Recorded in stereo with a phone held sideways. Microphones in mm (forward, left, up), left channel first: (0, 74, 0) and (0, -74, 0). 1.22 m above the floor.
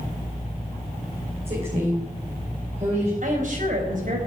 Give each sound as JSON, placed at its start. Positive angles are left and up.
{"t": 1.4, "sound": "a woman speaking", "side_deg": -45, "distance_m": 5.0}
{"t": 3.2, "sound": "a woman speaking", "side_deg": -65, "distance_m": 5.5}